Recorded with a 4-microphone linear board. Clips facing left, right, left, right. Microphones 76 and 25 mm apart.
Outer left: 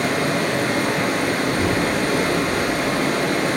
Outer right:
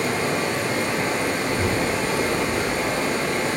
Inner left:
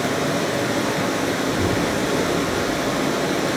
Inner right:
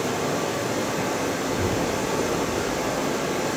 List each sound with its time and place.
0.0 s running water: 60° left (ahead or behind), 1.5 m
1.4 s a child speaking: 40° right (ahead or behind), 2.5 m